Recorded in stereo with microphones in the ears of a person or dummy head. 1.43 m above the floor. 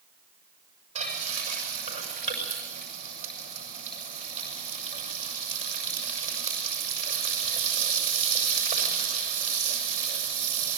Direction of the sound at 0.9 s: 45° right (ahead or behind).